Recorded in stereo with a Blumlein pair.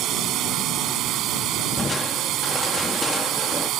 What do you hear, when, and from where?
0.0 s a drone: 35° right
1.8 s crushing: 10° left